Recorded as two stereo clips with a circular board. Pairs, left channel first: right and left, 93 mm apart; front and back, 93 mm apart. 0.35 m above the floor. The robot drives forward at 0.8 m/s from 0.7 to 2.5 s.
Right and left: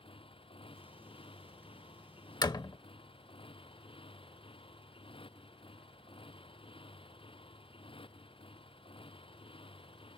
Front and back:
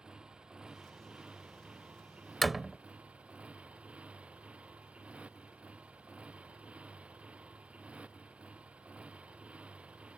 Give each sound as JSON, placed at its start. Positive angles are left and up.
{"t": 0.0, "sound": "a motorcycle", "azimuth_deg": -100}
{"t": 2.4, "sound": "a door slam", "azimuth_deg": -85}